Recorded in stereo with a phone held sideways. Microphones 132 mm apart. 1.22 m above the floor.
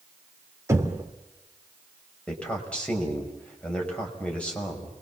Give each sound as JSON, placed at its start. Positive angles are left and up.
{"t": 0.7, "sound": "knocking", "side_deg": -20, "distance_m": 2.5}
{"t": 2.3, "sound": "a man speaking", "side_deg": 10, "distance_m": 6.0}